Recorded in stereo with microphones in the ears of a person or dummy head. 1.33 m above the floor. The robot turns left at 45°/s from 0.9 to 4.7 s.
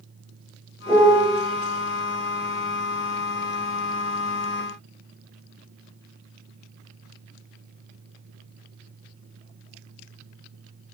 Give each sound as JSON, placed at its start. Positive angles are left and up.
{"t": 0.9, "sound": "a piano", "side_deg": 20, "distance_m": 0.9}